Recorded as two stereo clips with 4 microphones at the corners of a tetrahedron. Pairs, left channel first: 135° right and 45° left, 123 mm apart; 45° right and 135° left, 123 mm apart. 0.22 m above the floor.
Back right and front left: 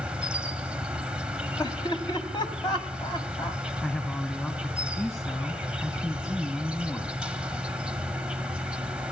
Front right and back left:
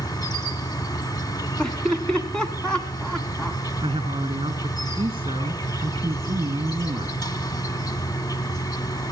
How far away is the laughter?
About 1.7 m.